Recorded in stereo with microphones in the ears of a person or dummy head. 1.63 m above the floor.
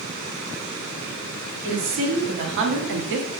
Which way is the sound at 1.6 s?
55° right (ahead or behind).